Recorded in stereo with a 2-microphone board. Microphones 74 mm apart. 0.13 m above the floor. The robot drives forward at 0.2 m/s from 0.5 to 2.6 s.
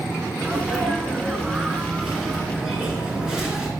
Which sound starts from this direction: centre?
A sneeze, at 0.4 s.